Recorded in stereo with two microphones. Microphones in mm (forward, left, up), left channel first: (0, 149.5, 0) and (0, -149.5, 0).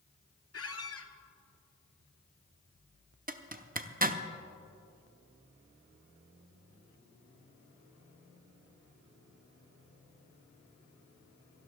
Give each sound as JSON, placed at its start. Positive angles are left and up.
{"t": 0.5, "sound": "a squeak", "side_deg": 50, "distance_m": 0.9}
{"t": 3.3, "sound": "a zipper", "side_deg": -30, "distance_m": 0.6}